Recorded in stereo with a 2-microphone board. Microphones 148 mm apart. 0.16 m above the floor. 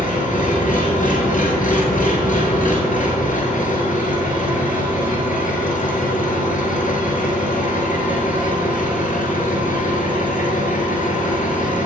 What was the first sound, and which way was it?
An engine running, 65° left (ahead or behind).